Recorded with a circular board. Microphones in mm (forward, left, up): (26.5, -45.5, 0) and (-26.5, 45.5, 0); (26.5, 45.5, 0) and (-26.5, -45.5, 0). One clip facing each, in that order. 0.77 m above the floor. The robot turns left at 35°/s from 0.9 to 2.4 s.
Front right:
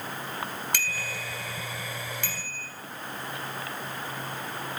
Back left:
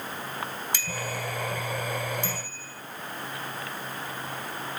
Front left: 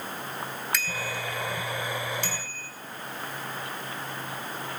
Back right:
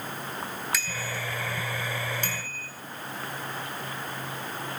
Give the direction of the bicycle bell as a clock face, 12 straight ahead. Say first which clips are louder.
Back left 2 dB, front left 1 dB; 1 o'clock.